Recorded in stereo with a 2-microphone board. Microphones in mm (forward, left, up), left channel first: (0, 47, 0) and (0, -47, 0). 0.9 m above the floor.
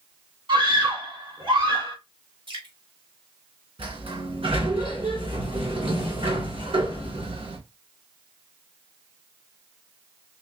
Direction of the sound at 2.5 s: 65° right (ahead or behind).